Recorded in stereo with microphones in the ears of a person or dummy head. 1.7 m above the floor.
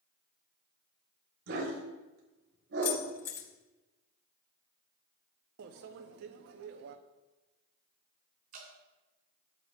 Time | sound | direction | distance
1.5 | a dog barking | 65° right (ahead or behind) | 3 m
2.8 | keys jangling | 20° left (ahead or behind) | 5 m
5.6 | a microwave | 60° right (ahead or behind) | 0.8 m
8.5 | dripping | 55° right (ahead or behind) | 3 m